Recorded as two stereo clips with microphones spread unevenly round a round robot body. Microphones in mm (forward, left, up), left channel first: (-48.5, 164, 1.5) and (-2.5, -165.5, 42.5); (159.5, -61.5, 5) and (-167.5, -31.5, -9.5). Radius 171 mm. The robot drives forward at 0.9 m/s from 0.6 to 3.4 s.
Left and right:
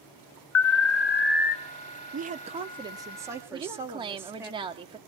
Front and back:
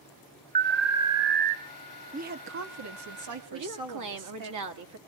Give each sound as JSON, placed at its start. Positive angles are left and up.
{"t": 0.6, "sound": "an alarm", "azimuth_deg": 115, "distance_m": 0.7}
{"t": 2.1, "sound": "a woman speaking", "azimuth_deg": -140, "distance_m": 0.9}
{"t": 3.5, "sound": "a woman speaking", "azimuth_deg": -160, "distance_m": 2.0}